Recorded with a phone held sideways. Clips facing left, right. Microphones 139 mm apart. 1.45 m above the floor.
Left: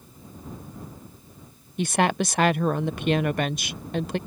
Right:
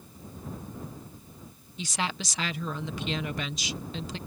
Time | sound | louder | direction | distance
1.8 | a woman speaking | left 10 dB | 60° left (ahead or behind) | ?